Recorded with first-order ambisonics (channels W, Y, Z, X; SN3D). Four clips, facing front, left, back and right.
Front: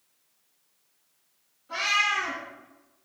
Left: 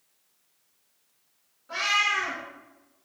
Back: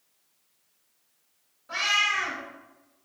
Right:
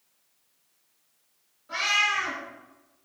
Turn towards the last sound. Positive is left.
turn(degrees=175)